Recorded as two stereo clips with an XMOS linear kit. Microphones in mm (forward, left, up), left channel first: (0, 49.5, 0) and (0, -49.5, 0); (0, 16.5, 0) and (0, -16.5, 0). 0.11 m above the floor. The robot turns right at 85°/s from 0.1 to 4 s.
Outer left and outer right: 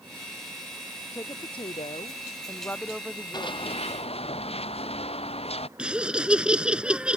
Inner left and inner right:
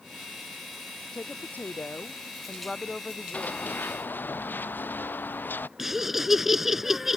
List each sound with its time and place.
1.1 s a woman speaking: 25° left; by 3.8 s 105° right
3.3 s running footsteps: 45° left (ahead or behind); by 5.7 s 80° left
5.8 s laughter: 10° right (ahead or behind)